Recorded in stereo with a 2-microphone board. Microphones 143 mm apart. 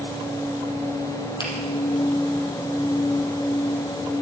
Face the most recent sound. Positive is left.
turn(degrees=35)  # may be behind; listen again after turning